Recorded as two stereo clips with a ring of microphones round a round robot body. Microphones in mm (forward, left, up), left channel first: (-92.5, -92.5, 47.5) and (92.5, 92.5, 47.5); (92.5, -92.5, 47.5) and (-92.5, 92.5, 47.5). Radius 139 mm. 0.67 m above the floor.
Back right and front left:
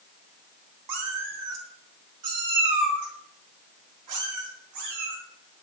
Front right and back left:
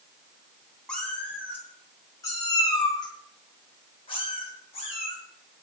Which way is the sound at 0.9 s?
40° left.